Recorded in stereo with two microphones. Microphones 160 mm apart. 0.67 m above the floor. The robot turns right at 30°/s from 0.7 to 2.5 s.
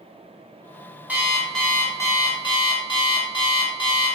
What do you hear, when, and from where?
1.1 s an alarm clock: 10° right, 0.7 m; by 4.2 s 35° left, 0.7 m